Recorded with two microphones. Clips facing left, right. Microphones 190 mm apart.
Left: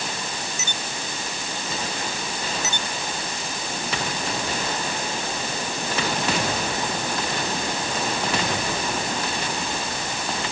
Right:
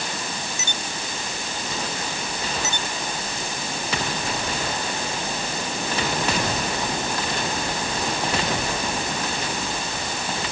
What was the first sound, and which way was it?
Only background noise.